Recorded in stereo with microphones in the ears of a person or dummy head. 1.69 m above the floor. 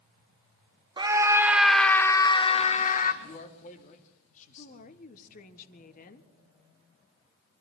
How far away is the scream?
About 1.6 m.